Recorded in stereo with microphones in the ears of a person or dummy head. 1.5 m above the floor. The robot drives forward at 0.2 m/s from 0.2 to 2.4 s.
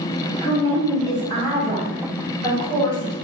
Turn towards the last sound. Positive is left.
turn(degrees=15)  # may be behind; listen again after turning